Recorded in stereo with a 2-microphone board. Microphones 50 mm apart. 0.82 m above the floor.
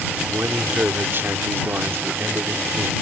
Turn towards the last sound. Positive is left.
turn(degrees=-50)  # may be behind; listen again after turning